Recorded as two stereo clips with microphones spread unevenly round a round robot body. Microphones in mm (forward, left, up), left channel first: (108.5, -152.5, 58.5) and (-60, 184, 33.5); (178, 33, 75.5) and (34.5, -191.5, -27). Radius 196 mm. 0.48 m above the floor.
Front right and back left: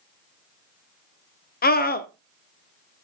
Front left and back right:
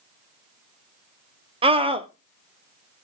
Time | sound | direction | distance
1.6 | a scream | 120° right | 1.0 m